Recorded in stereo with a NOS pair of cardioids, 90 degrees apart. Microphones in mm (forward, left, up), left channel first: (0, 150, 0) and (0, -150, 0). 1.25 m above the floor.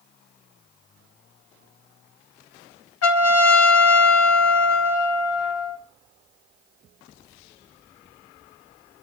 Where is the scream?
I don't hear a scream.